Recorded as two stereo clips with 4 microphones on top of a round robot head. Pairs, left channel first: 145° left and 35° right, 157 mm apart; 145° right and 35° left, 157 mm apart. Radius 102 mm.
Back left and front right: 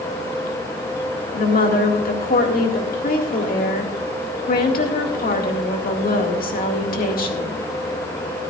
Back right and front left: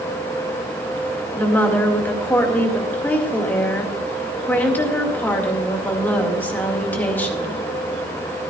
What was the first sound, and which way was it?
A woman speaking, 140° left.